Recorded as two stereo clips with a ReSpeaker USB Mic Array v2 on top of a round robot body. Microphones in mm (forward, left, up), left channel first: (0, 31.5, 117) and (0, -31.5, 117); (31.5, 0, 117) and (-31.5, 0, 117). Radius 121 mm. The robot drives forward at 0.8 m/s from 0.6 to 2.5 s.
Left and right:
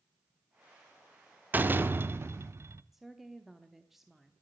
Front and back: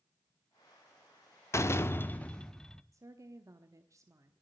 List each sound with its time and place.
1.5 s a door slam: 30° right, 1.3 m; by 2.8 s 75° right, 0.9 m
2.9 s a woman speaking: 175° right, 1.2 m